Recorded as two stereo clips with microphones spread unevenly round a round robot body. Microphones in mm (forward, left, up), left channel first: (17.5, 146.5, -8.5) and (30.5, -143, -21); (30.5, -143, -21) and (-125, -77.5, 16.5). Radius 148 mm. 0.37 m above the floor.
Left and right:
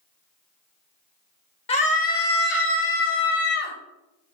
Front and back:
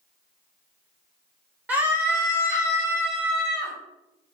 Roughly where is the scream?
Ahead left.